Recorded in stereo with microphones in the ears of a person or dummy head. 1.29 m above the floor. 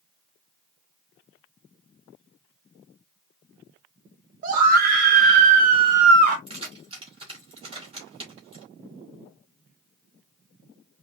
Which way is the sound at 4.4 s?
45° right (ahead or behind).